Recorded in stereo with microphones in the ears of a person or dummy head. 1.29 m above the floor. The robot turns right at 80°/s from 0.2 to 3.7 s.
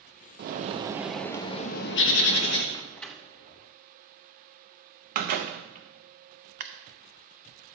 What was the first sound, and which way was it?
A bird, 60° right.